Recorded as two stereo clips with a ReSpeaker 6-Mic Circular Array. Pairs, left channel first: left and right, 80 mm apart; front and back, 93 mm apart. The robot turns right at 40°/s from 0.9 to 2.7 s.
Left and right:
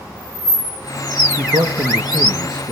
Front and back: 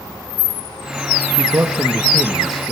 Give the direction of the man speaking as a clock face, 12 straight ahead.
5 o'clock.